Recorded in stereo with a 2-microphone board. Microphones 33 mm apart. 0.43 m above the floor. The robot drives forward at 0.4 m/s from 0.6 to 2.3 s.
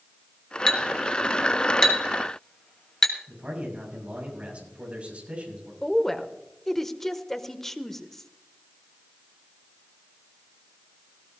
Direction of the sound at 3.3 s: 40° right (ahead or behind).